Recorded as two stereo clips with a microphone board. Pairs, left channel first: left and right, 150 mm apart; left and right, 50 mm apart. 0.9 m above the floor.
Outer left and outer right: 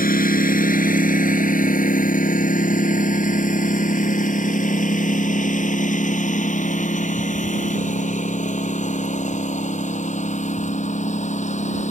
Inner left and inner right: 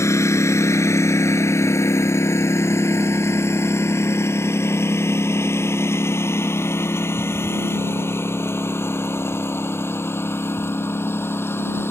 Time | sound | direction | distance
0.0 | a lawn mower | 65° left (ahead or behind) | ?